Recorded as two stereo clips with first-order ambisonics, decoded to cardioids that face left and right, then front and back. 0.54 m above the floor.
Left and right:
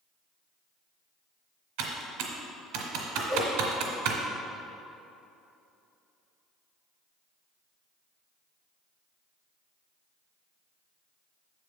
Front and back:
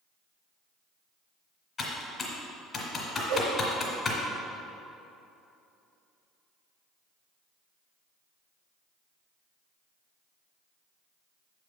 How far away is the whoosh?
About 1.2 m.